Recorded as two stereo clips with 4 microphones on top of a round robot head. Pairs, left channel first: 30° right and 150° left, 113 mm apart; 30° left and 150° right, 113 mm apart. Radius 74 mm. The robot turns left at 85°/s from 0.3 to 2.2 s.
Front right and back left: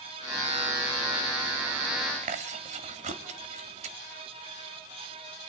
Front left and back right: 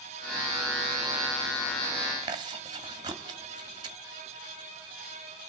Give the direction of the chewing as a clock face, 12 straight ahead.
7 o'clock.